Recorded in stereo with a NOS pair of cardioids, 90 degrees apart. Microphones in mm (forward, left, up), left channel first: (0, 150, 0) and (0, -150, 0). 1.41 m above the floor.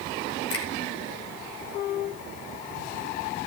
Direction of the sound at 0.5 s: 50° left.